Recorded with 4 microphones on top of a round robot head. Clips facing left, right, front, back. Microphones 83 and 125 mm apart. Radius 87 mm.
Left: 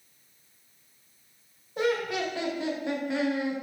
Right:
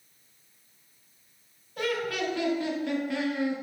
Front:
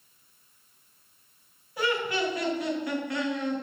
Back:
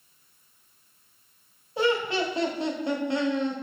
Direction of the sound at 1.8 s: 140° left.